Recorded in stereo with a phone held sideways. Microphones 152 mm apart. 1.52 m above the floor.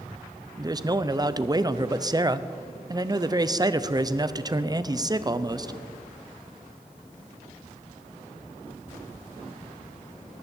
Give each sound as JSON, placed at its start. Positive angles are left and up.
{"t": 0.6, "sound": "a man speaking", "side_deg": -25, "distance_m": 0.7}